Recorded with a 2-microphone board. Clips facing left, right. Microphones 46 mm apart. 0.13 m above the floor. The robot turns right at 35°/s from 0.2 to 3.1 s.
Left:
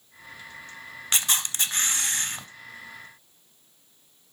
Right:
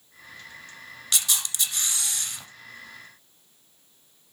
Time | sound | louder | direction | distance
1.1 | a camera shutter | left 2 dB | 60° left | 1.0 m